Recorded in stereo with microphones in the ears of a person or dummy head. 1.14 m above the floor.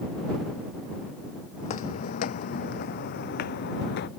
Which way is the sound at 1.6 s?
40° left (ahead or behind).